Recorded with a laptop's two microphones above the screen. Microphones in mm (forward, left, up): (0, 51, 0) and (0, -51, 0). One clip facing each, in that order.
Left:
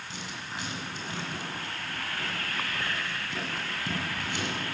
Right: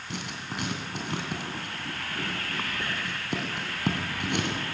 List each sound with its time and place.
0.1 s writing: 70° right (ahead or behind), 2.5 m